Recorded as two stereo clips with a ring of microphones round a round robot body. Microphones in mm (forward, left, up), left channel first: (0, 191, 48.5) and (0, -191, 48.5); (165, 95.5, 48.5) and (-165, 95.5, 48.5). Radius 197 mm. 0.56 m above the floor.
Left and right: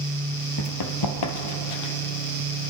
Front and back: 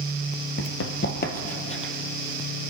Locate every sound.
0.6 s running footsteps: 40° left, 0.9 m; by 1.9 s 75° left, 1.3 m